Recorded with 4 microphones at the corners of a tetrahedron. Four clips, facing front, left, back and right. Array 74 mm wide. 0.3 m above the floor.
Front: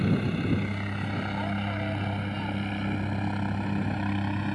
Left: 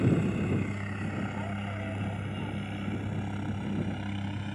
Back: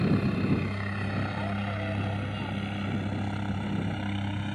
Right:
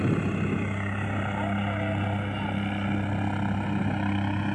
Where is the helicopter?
105° right; by 4.5 s 70° right.